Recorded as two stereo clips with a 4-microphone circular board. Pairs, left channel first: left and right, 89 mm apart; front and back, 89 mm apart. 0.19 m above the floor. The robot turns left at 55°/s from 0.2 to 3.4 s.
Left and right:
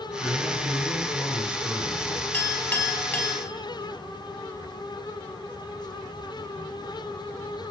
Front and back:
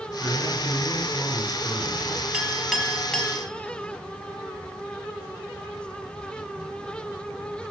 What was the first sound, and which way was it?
A man speaking, 105° left.